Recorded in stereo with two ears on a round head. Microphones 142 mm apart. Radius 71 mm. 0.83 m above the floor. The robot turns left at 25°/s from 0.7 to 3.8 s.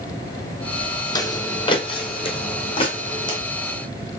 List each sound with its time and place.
1.1 s footsteps: 20° left (ahead or behind), 1.3 m; by 3.4 s 25° left (ahead or behind), 2.5 m